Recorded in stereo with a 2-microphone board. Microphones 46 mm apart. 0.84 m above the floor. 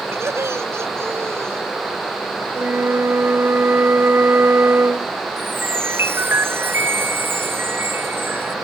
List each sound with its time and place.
0.1 s laughter: 85° right; by 1.6 s 80° right
2.5 s a flute: 65° right (ahead or behind)
5.4 s a chime: 60° right (ahead or behind)